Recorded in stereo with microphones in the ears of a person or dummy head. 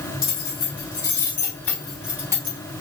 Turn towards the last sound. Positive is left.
turn(degrees=-30)  # may be behind; listen again after turning